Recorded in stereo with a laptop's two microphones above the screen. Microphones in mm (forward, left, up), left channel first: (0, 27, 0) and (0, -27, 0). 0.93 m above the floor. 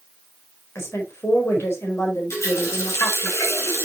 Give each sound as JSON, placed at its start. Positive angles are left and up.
{"t": 0.8, "sound": "a woman speaking", "side_deg": 55, "distance_m": 4.0}
{"t": 2.3, "sound": "a running tap", "side_deg": 65, "distance_m": 4.5}